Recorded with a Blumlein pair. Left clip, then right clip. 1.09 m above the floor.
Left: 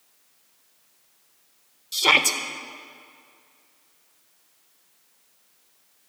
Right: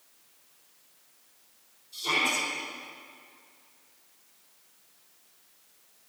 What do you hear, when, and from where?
1.9 s a shout: 45° left, 1.4 m